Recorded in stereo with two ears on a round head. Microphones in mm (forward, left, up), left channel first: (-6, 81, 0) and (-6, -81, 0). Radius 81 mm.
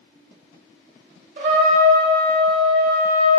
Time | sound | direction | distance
1.4 | a trumpet | 50° right (ahead or behind) | 0.8 m